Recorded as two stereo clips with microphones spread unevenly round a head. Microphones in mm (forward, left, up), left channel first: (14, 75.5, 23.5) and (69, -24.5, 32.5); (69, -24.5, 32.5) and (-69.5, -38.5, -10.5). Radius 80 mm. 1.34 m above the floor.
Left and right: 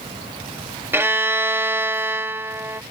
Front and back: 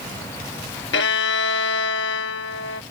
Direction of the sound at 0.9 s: 10° left.